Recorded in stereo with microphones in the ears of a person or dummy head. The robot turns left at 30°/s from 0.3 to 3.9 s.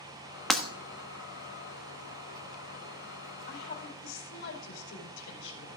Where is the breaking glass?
Centre (ahead or behind), 1.2 m.